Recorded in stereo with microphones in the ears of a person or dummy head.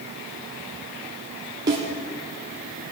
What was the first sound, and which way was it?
A snare drum, 15° right (ahead or behind).